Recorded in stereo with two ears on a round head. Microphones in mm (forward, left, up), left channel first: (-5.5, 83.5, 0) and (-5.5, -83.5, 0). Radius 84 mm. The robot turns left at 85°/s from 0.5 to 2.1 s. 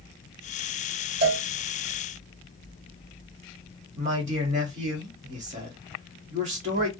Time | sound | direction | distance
1.2 | a cowbell | 55° right (ahead or behind) | 1.6 m
3.9 | a man speaking | 40° right (ahead or behind) | 1.6 m